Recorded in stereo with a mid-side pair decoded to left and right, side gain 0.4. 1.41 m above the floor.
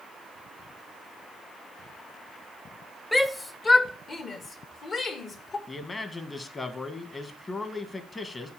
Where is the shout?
20° left, 0.9 m; by 5.6 s 60° left, 2.5 m.